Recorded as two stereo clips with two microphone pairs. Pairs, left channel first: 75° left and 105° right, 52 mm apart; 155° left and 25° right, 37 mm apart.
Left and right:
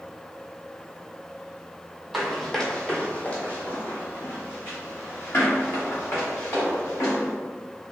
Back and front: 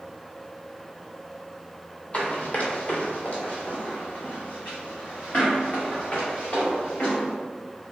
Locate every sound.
2.1 s running footsteps: 165° left, 0.9 m; by 7.3 s 105° left, 3 m